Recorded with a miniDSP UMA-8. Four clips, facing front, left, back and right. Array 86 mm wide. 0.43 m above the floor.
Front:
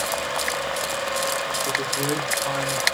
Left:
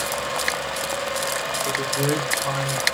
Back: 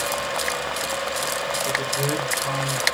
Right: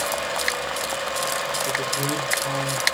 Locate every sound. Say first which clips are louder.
1.6 s a man speaking: left 2 dB, back 1 dB; 100° left, 2.5 m; by 2.9 s 115° left, 1.8 m